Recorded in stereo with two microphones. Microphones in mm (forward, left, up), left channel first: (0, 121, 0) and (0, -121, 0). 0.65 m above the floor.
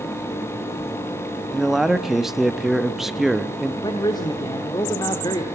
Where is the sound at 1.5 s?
Centre (ahead or behind), 0.8 m.